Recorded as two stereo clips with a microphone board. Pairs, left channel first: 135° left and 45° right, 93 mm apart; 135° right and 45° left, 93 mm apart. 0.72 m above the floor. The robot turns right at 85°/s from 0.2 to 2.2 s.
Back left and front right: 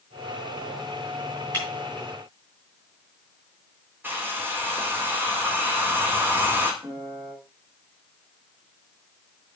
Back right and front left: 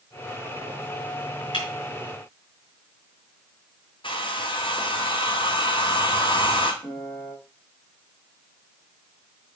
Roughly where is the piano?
Right.